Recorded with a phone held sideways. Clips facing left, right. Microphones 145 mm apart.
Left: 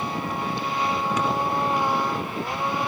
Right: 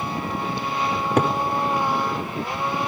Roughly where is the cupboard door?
Right.